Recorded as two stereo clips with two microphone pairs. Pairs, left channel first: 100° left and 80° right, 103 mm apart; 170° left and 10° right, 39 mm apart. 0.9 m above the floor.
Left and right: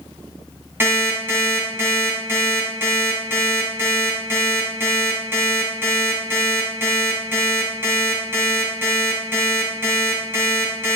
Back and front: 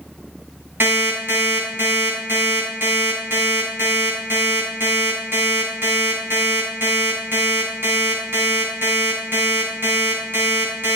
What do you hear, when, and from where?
0.8 s an alarm clock: 15° right, 3.5 m